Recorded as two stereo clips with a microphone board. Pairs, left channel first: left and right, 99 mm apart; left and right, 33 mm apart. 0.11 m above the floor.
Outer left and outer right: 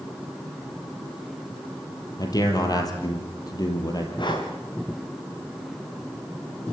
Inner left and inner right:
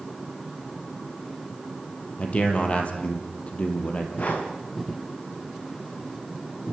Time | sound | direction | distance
2.2 | a man speaking | 40° left (ahead or behind) | 3.5 m
4.2 | breathing | 55° left (ahead or behind) | 4 m